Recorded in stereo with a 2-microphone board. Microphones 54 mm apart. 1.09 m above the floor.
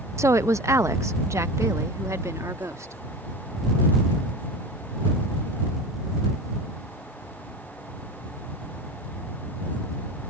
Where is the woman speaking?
55° right (ahead or behind); by 3.0 s 65° right (ahead or behind).